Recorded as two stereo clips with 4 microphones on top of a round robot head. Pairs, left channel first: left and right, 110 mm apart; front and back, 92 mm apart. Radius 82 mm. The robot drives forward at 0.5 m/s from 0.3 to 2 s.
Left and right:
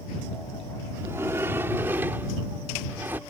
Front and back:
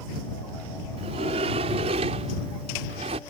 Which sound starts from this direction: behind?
A sliding door, at 1.0 s.